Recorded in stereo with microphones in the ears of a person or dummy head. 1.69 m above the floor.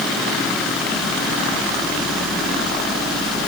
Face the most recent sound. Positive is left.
No sound to turn to.